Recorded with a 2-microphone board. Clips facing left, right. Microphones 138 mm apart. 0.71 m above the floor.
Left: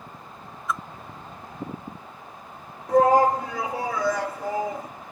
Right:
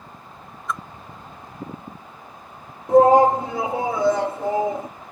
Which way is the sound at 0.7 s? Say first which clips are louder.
Even; centre (ahead or behind).